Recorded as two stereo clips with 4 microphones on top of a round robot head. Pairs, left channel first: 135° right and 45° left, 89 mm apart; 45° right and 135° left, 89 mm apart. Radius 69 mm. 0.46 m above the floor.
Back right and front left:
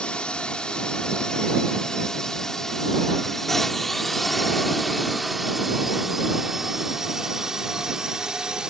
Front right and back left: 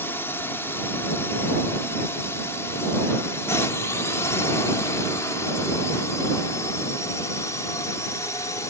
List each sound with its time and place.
0.0 s a drone: 70° right; by 8.7 s 35° right